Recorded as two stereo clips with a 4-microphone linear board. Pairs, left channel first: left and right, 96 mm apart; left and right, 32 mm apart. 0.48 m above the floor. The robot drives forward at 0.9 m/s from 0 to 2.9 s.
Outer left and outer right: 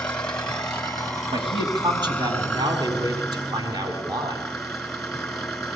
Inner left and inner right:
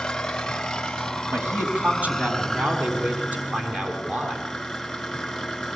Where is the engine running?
10° left (ahead or behind), 2 m; by 5.8 s 5° left (ahead or behind), 4.5 m.